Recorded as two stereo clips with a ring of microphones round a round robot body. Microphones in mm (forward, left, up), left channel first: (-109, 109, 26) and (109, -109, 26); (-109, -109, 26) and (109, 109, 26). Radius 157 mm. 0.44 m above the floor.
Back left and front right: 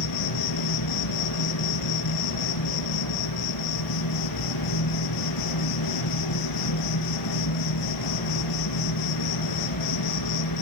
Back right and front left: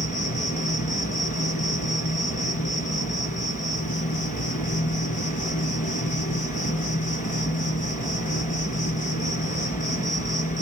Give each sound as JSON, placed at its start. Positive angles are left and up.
{"t": 0.0, "sound": "an insect", "azimuth_deg": 160, "distance_m": 3.5}